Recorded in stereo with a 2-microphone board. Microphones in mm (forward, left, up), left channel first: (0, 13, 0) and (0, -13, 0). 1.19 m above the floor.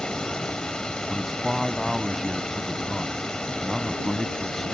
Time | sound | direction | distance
0.0 | running water | 35° left (ahead or behind) | ?
1.1 | a man speaking | 10° right (ahead or behind) | ?